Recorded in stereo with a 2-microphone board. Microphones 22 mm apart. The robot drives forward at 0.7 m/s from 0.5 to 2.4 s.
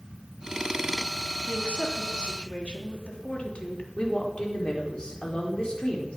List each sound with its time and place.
1.5 s a woman speaking: 75° left (ahead or behind), 3 m; by 3.9 s 65° left (ahead or behind), 3.5 m
4.0 s a woman speaking: 40° left (ahead or behind), 4 m